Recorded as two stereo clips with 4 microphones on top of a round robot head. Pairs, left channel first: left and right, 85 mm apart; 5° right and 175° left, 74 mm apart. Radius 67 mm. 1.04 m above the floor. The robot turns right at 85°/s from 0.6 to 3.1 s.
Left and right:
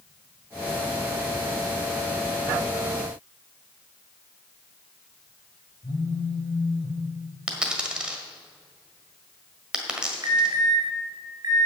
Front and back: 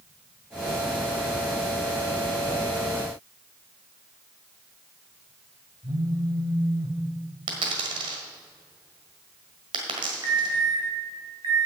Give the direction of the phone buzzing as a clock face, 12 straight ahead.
7 o'clock.